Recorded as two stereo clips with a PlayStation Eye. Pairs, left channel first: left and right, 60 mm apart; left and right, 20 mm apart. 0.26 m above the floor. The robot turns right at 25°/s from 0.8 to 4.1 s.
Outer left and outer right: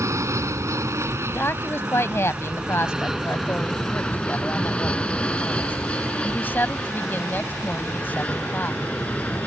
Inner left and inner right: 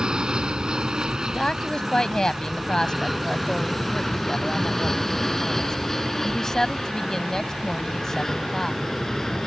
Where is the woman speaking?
60° left; by 8.8 s 130° left.